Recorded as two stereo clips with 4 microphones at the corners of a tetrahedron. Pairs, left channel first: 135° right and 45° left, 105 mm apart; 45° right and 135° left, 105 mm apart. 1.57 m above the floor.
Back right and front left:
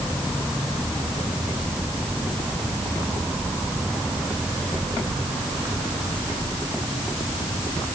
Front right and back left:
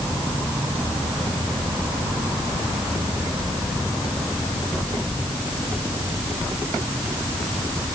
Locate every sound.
Only background noise.